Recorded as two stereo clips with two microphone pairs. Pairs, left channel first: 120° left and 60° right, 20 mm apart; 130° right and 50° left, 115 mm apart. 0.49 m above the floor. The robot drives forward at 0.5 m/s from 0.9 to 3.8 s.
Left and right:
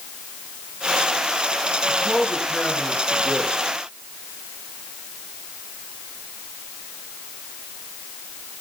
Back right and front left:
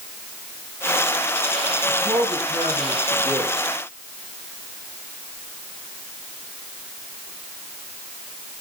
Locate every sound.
1.9 s a man speaking: 70° left, 6.5 m; by 3.5 s 75° left, 6.5 m